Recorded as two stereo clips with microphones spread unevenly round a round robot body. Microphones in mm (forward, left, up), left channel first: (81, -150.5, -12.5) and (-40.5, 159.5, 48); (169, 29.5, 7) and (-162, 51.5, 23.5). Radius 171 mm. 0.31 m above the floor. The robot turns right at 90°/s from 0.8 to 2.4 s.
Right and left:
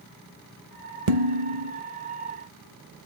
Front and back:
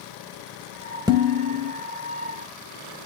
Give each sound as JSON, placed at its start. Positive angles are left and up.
{"t": 1.1, "sound": "dishes clattering", "azimuth_deg": 95, "distance_m": 0.9}